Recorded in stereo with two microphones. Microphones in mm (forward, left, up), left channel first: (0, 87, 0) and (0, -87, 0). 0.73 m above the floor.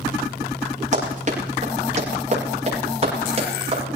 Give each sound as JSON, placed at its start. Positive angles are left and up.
{"t": 0.9, "sound": "running footsteps", "side_deg": -45, "distance_m": 9.5}